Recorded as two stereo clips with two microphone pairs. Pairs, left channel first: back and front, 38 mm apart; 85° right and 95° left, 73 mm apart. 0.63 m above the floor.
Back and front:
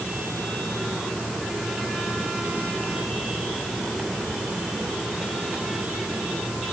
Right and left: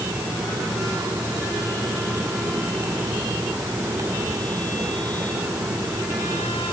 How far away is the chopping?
No chopping in this recording.